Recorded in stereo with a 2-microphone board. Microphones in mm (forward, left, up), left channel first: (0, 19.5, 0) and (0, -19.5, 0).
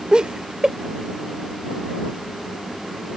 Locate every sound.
0.1 s laughter: 25° right (ahead or behind)